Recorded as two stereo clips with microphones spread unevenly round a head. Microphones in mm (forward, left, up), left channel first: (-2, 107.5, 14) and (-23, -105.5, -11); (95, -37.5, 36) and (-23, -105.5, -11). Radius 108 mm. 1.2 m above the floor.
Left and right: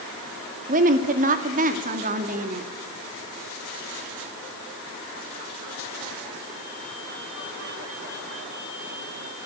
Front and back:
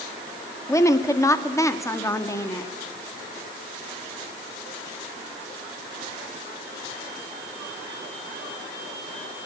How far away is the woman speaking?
About 2.5 m.